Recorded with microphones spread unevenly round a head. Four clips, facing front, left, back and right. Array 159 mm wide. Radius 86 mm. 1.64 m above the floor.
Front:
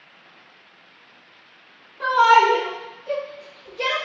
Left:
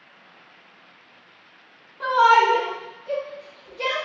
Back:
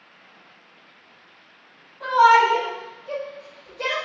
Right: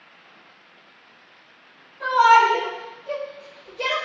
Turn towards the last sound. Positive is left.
turn(degrees=-15)